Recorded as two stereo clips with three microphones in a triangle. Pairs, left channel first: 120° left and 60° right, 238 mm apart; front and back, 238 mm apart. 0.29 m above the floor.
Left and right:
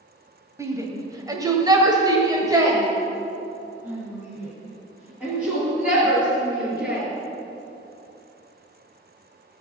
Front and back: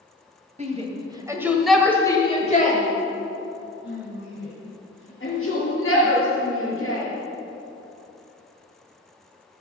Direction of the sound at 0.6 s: 130° right.